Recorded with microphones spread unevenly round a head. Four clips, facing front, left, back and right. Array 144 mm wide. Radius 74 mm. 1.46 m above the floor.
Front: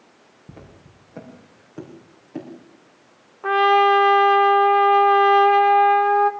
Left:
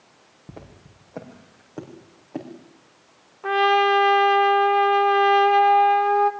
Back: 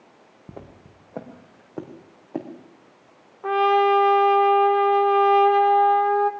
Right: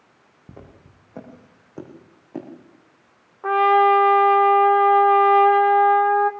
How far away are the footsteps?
About 4.5 m.